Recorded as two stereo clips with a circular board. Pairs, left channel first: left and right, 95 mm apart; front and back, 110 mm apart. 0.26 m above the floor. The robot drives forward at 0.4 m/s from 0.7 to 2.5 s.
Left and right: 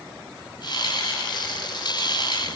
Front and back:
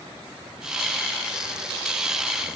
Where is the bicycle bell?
No bicycle bell in this recording.